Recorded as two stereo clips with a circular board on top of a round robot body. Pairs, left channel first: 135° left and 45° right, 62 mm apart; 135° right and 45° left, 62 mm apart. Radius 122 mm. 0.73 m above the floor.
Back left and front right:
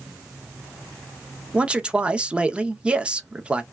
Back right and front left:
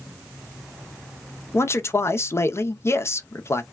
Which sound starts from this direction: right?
A man speaking, at 1.5 s.